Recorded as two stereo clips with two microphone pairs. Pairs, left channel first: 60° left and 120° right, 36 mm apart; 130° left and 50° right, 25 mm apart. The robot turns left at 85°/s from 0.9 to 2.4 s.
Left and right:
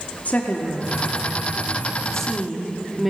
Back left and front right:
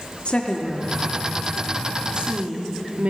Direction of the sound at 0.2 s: 95° left.